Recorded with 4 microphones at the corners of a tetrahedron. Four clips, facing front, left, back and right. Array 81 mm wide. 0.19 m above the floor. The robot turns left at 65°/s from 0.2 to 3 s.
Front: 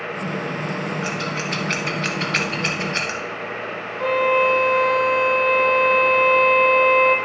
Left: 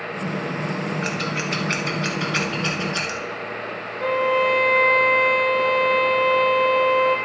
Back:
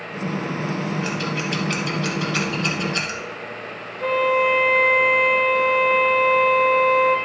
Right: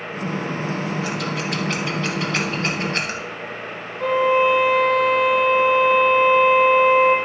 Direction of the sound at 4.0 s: 15° right.